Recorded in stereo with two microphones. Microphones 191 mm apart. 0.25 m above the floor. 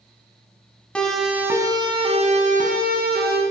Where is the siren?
5° left (ahead or behind), 2.5 m; by 3.4 s 60° right (ahead or behind), 4 m.